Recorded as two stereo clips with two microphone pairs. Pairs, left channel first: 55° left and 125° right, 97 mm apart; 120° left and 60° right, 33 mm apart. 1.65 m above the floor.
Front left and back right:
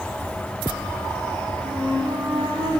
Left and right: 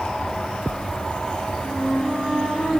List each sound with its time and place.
1.6 s a flute: 90° right, 2 m